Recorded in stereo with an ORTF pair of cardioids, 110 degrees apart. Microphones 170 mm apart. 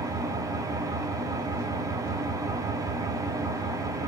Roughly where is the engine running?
Ahead.